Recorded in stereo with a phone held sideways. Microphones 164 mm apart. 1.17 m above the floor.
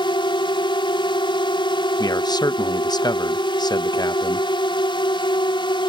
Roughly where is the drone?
Left.